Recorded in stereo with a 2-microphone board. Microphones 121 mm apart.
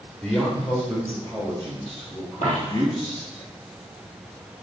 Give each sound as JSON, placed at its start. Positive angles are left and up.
{"t": 0.2, "sound": "a man speaking", "side_deg": 5, "distance_m": 1.3}
{"t": 2.4, "sound": "a dropped coin", "side_deg": 70, "distance_m": 3.5}